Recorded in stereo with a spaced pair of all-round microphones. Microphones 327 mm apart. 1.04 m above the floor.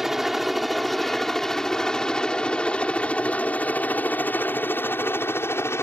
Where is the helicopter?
Centre (ahead or behind); by 5.8 s 10° left (ahead or behind).